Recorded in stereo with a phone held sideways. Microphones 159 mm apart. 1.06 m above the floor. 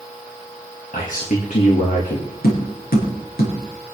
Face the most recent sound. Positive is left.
turn(degrees=80)